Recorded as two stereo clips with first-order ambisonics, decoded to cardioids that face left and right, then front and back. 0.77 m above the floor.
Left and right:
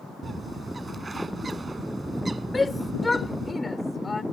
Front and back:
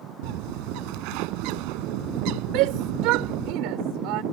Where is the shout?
170° left.